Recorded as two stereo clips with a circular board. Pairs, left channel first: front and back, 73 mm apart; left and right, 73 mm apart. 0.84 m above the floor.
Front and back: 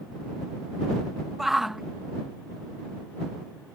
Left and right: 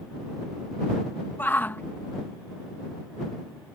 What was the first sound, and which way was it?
A shout, 100° left.